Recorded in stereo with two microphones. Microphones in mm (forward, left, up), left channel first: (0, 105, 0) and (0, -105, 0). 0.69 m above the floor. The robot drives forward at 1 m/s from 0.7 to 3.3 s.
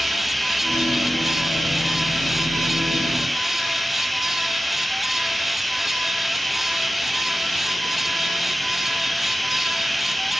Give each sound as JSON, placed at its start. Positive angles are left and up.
{"t": 0.0, "sound": "running water", "side_deg": 0}